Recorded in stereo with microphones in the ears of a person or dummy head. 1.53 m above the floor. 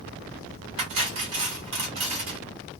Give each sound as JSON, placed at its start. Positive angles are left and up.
{"t": 0.8, "sound": "cutlery clinking", "side_deg": -30, "distance_m": 1.1}